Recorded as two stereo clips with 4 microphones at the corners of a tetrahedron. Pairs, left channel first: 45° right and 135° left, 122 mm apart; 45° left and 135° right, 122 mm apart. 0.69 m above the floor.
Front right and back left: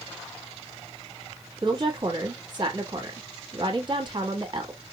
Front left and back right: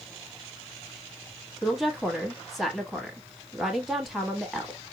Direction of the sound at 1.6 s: 140° left.